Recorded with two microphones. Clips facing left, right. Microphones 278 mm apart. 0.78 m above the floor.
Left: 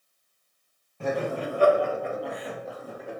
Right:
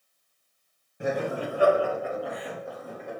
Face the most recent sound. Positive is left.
turn(degrees=5)  # may be behind; listen again after turning